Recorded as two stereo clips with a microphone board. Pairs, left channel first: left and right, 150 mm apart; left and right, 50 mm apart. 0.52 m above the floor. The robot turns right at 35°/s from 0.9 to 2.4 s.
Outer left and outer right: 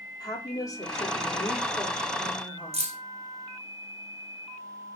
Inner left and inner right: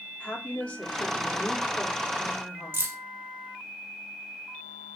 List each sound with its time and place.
0.2 s a woman speaking: 25° left (ahead or behind), 0.7 m; by 2.9 s 10° left (ahead or behind), 0.7 m
2.7 s keys jangling: 45° right (ahead or behind), 0.5 m